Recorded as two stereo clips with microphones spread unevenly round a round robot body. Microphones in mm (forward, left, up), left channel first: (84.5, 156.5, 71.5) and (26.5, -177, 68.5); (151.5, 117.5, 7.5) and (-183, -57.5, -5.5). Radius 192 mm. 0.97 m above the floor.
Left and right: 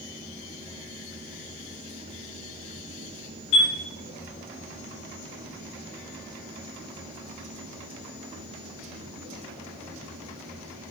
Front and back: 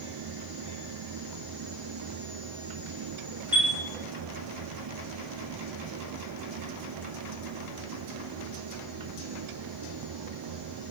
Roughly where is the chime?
Behind left.